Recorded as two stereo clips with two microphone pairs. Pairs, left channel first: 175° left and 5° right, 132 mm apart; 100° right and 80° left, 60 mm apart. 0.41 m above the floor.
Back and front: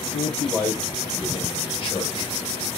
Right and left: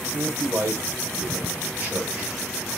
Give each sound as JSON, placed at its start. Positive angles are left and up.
{"t": 0.1, "sound": "a man speaking", "azimuth_deg": 100, "distance_m": 1.9}